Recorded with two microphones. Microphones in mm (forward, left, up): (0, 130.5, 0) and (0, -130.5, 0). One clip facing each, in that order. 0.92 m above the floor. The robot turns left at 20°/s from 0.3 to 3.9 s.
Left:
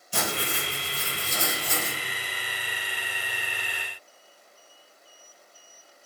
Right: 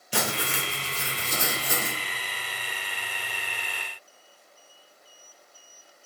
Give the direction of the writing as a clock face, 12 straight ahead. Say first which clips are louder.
Right 1 dB; 3 o'clock.